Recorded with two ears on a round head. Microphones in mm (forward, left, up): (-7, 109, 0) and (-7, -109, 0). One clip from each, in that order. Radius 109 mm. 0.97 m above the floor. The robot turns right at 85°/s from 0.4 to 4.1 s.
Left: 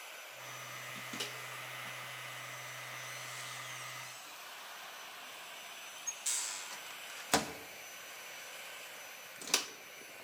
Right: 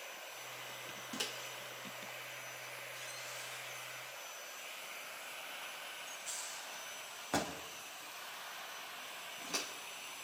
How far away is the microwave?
About 1.0 m.